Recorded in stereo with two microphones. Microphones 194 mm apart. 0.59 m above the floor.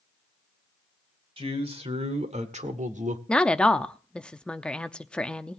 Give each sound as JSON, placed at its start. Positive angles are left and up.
{"t": 1.4, "sound": "a man speaking", "side_deg": -30, "distance_m": 2.0}
{"t": 3.3, "sound": "a woman speaking", "side_deg": 5, "distance_m": 0.6}